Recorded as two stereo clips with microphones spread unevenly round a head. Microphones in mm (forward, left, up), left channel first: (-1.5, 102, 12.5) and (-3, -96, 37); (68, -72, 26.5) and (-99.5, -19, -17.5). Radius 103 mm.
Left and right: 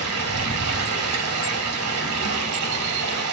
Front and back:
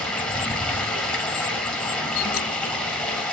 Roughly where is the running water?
Right.